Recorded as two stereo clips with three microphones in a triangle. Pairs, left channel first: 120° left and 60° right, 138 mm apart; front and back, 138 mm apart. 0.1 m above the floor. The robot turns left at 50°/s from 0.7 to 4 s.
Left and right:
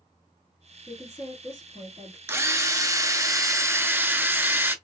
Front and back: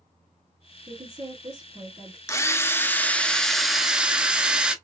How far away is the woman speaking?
About 1.7 m.